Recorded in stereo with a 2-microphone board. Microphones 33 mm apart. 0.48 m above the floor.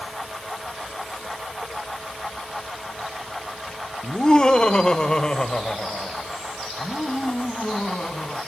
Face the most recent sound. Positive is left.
turn(degrees=25)  # may be behind; listen again after turning